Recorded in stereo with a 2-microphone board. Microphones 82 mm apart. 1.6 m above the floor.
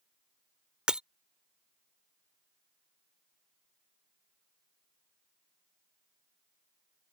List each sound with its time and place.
0.9 s breaking glass: 10° right (ahead or behind)